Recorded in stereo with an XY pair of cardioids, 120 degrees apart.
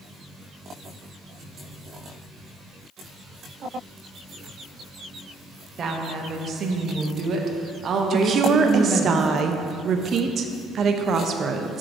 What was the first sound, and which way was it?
A woman speaking, 45° right.